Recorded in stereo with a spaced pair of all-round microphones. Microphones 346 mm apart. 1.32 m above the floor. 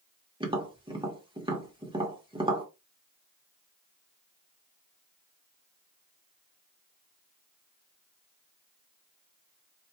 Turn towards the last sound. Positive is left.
turn(degrees=-15)  # may be behind; listen again after turning